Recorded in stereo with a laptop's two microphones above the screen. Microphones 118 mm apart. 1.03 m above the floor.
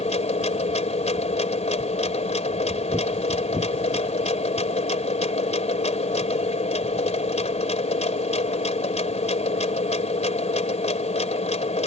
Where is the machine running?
70° left (ahead or behind).